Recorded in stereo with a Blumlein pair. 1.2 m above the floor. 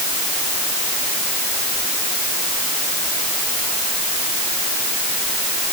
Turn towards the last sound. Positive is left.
No sound to turn to.